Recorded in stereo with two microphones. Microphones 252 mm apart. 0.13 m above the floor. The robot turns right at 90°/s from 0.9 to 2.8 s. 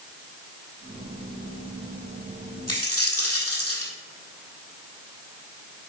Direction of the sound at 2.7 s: 80° left.